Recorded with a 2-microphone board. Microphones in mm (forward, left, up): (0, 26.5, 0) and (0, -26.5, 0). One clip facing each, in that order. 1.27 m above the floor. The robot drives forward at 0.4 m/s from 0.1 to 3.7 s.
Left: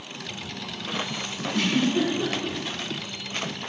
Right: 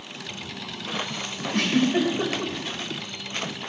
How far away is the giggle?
About 5.5 m.